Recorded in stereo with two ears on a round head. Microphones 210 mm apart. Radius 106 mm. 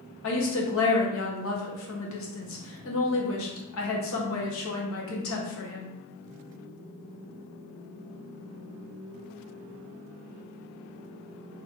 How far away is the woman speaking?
About 1.1 m.